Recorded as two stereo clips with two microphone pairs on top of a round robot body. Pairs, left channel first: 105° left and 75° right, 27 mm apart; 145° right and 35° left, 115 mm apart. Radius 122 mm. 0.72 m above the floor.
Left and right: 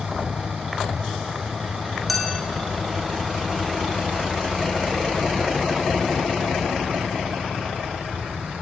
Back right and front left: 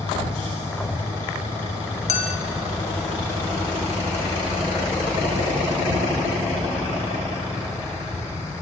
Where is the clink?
165° right, 3.5 m.